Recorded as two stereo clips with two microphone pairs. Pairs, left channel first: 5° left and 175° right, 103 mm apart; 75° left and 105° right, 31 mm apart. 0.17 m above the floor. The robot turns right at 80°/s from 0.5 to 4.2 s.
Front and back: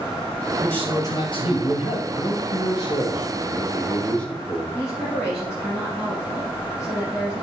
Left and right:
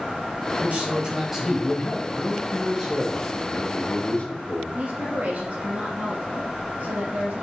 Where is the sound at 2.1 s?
85° right, 2.5 m; by 4.6 s 85° left, 2.5 m.